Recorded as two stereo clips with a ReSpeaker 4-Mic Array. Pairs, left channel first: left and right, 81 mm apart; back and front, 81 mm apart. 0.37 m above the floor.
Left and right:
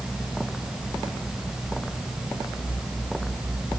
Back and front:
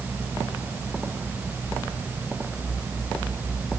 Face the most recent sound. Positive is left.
No sound to turn to.